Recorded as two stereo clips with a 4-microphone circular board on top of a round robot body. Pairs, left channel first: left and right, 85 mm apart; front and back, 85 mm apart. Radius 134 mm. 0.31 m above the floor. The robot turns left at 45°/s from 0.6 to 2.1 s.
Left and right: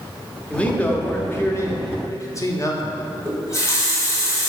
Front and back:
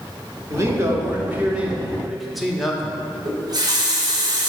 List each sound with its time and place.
0.5 s a man speaking: 160° left, 1.2 m; by 3.0 s 90° left, 1.2 m
3.2 s a running tap: 145° left, 1.3 m